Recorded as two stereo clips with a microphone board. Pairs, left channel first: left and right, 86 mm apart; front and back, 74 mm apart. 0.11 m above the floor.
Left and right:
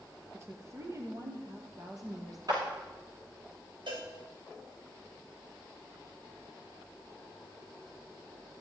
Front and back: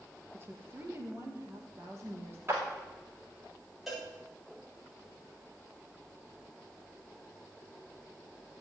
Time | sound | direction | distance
0.3 | a woman speaking | 135° right | 2.5 m
2.5 | a clap | 120° right | 6.5 m
3.9 | a cowbell | 95° right | 4 m